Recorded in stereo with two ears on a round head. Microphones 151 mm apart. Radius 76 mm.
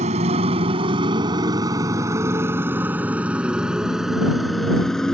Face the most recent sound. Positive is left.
turn(degrees=5)  # may be behind; listen again after turning